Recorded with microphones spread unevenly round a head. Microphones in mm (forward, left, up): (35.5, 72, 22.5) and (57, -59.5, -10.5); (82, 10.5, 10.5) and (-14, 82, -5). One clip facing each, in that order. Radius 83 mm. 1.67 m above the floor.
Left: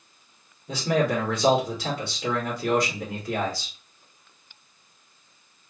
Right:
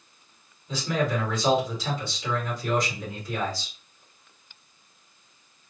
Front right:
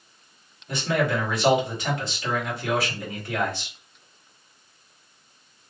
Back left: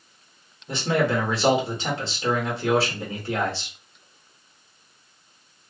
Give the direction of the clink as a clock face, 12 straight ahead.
I don't hear a clink.